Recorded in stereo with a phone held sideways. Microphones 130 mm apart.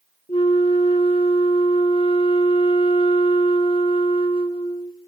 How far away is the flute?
About 0.8 m.